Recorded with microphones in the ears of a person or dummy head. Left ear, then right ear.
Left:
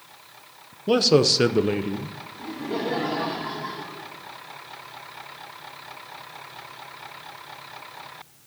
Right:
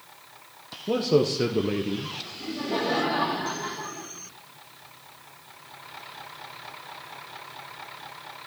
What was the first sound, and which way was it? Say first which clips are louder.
A man speaking: left 5 dB; 60° left (ahead or behind).